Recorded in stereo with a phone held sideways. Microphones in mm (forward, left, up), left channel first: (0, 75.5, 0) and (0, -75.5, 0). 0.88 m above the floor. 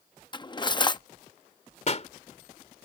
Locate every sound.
0.3 s cutlery clinking: 30° left (ahead or behind)
1.9 s a pop: 45° left (ahead or behind)